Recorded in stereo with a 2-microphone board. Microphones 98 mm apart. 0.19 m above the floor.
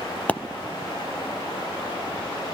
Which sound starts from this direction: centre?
A pop, at 0.3 s.